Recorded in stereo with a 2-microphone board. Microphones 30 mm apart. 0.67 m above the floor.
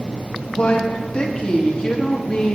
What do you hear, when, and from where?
0.5 s a woman speaking: 30° left (ahead or behind), 0.8 m